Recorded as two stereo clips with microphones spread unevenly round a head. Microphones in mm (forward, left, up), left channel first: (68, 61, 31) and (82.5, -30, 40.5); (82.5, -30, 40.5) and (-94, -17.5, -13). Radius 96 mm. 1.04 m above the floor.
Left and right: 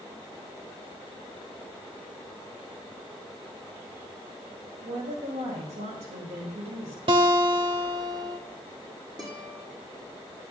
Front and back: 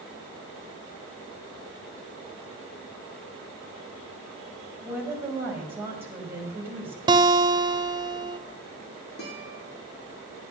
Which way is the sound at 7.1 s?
110° right.